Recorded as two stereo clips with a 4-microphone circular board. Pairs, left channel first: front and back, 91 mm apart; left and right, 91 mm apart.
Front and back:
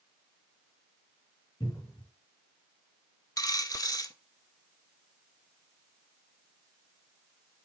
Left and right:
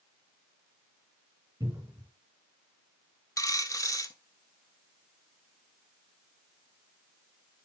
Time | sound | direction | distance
1.6 | a cupboard door | 45° right | 4 m
3.4 | a dropped coin | 40° left | 0.6 m